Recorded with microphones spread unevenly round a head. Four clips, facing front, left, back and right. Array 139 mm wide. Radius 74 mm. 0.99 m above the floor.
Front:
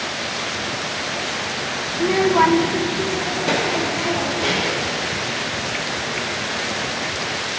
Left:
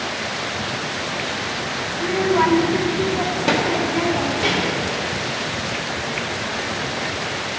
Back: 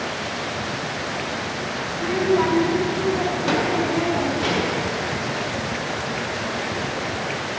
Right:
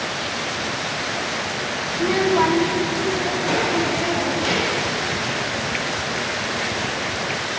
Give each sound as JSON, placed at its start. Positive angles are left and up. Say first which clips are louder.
{"t": 1.9, "sound": "a child speaking", "louder": "even, front 4 dB", "azimuth_deg": -25, "distance_m": 0.7}